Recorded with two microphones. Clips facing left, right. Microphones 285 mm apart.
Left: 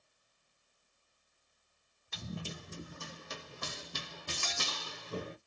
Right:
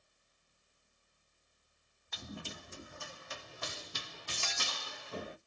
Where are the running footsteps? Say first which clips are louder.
Left 3 dB; 35° left (ahead or behind), 1.4 m; by 5.4 s 40° left (ahead or behind), 1.2 m.